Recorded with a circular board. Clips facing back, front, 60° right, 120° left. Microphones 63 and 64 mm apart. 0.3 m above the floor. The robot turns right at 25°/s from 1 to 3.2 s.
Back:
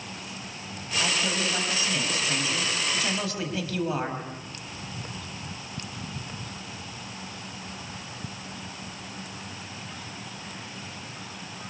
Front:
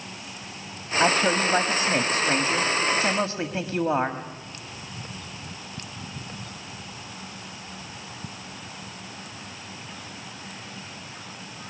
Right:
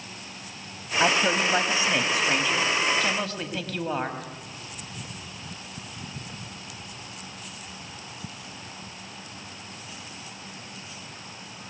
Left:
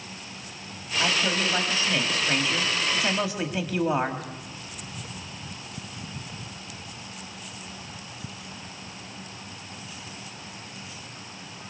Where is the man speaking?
10° right, 1.8 m; by 4.2 s 45° left, 1.8 m.